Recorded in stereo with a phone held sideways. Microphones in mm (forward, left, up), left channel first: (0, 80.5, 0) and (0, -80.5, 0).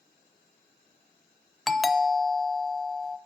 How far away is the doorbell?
About 0.6 m.